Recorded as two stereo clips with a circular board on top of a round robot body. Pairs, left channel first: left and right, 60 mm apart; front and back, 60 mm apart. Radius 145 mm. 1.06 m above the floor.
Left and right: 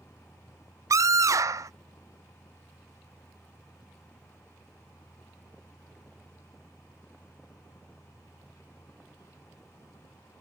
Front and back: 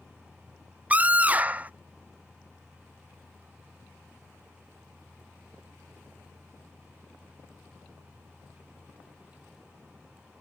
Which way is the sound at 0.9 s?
115° right.